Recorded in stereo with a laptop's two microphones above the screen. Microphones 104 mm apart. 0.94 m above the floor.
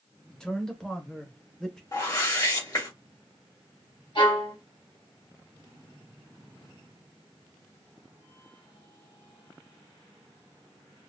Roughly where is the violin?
Left.